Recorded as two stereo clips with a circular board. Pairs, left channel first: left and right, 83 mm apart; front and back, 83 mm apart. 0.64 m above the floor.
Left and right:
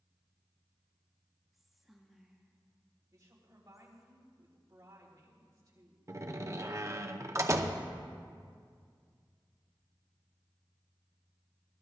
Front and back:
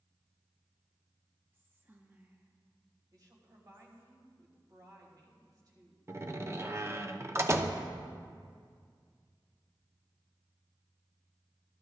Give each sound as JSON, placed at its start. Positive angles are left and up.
{"t": 1.5, "sound": "whispering", "azimuth_deg": -175, "distance_m": 1.0}
{"t": 3.1, "sound": "a woman speaking", "azimuth_deg": -140, "distance_m": 3.0}
{"t": 6.1, "sound": "a door slam", "azimuth_deg": -130, "distance_m": 0.7}